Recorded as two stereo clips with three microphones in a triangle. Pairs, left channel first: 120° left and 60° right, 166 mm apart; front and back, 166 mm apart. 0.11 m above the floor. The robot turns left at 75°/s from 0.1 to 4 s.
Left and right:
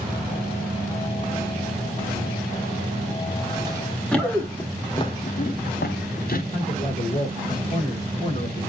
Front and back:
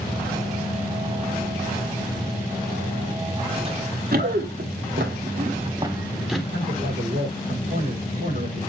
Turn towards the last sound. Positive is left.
turn(degrees=160)